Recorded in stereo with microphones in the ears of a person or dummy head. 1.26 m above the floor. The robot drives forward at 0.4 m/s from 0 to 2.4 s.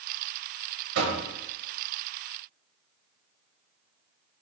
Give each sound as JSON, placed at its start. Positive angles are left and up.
{"t": 0.9, "sound": "knocking", "side_deg": -70, "distance_m": 0.8}